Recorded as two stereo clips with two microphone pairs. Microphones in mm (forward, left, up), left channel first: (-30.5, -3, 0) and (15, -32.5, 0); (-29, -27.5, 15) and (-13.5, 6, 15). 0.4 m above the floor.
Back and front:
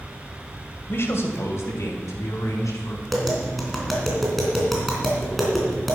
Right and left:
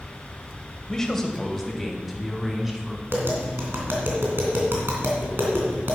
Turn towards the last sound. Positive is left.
turn(degrees=60)